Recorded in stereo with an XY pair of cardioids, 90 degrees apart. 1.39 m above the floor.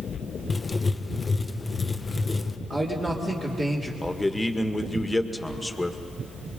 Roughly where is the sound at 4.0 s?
Ahead.